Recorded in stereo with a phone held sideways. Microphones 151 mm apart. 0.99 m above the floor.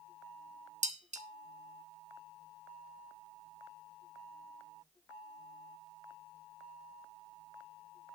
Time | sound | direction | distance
0.8 | dishes clattering | 55° right (ahead or behind) | 1.2 m